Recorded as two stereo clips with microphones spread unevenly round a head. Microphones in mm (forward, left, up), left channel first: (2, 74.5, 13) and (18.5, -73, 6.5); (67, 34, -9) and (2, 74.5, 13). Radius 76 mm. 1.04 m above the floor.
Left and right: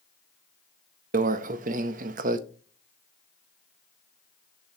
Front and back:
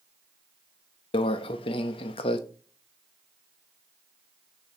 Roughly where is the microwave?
Ahead right.